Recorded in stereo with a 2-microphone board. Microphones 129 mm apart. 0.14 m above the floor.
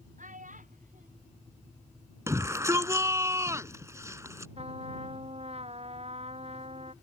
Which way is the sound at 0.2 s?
85° right.